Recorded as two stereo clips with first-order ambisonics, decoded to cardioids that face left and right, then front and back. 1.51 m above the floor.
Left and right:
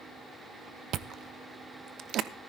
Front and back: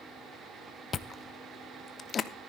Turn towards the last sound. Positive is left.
turn(degrees=-60)